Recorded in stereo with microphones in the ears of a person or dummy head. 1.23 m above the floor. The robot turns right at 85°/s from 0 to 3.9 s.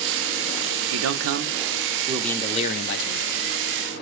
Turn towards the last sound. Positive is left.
turn(degrees=145)